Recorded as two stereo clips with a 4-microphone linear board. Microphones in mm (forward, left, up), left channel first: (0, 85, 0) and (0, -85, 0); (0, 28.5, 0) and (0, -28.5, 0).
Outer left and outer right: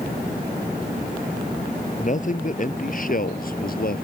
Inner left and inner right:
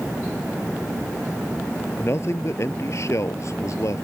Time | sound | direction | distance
2.0 | a man speaking | 50° left (ahead or behind) | ?